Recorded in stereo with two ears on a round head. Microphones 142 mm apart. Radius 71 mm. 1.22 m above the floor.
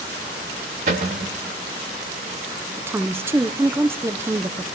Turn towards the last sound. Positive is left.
turn(degrees=-15)  # may be behind; listen again after turning